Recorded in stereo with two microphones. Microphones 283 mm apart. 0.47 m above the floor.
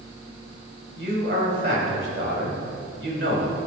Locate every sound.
1.0 s a man speaking: 45° right (ahead or behind), 2.5 m